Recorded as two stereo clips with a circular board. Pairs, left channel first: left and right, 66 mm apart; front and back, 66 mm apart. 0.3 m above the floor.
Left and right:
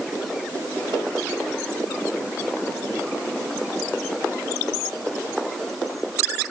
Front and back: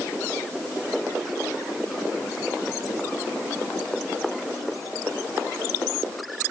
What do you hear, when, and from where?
Only background noise.